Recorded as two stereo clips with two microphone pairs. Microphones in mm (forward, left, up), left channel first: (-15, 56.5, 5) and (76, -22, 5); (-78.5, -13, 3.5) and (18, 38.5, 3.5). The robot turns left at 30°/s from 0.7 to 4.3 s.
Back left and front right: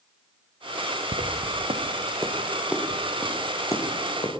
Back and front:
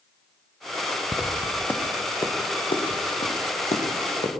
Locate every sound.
1.1 s footsteps: 50° right, 1.5 m; by 4.4 s straight behind, 4 m